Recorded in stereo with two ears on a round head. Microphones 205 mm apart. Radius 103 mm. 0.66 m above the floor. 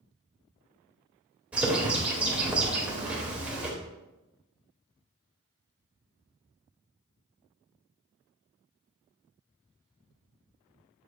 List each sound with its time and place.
1.5 s a bird: 5° right (ahead or behind), 1.5 m